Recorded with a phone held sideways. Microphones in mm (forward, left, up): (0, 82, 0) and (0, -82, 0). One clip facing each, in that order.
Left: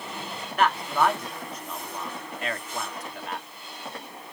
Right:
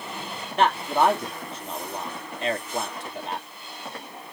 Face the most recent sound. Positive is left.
turn(degrees=-30)  # may be behind; listen again after turning